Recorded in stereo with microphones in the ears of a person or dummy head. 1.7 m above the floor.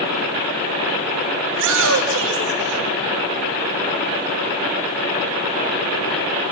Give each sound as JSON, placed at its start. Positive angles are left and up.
{"t": 1.5, "sound": "a shout", "side_deg": -50, "distance_m": 3.5}